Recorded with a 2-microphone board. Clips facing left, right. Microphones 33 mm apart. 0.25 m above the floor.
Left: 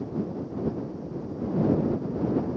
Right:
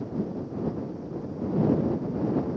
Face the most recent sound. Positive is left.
No sound to turn to.